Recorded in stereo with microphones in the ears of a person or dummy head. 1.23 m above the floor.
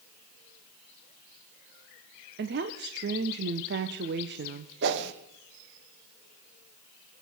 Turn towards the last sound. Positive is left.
turn(degrees=-60)  # may be behind; listen again after turning